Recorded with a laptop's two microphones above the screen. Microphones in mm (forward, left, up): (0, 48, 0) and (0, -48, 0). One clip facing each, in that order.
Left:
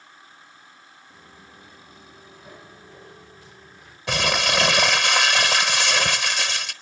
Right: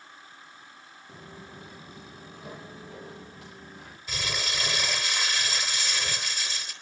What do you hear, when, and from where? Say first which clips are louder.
1.1 s footsteps: right 6 dB; 75° right (ahead or behind), 5.5 m; by 4.0 s 65° right (ahead or behind), 6 m
4.1 s crumpling: left 12 dB; 75° left (ahead or behind), 1.6 m